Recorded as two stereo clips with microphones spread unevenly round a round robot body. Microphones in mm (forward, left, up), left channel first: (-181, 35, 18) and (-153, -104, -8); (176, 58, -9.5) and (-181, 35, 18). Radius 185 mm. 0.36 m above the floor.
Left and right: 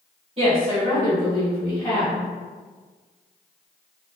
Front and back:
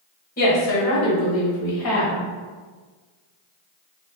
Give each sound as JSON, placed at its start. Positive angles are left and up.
{"t": 0.4, "sound": "a woman speaking", "azimuth_deg": -55, "distance_m": 1.2}